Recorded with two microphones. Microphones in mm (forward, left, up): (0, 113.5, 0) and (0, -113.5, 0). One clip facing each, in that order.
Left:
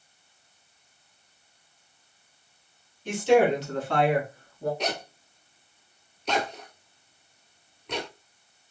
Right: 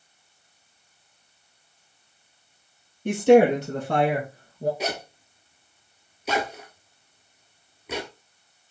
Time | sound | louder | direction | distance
3.0 | a woman speaking | right 5 dB | 60° right (ahead or behind) | 2 m
4.8 | a zipper | right 1 dB | 5° right (ahead or behind) | 0.9 m